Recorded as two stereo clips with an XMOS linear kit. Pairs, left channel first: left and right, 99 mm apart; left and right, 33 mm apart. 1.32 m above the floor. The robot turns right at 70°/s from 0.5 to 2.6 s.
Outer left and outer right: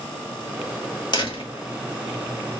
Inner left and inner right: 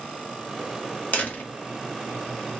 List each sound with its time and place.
1.1 s a door slam: 50° left (ahead or behind), 1.4 m; by 1.5 s 75° left (ahead or behind), 1.4 m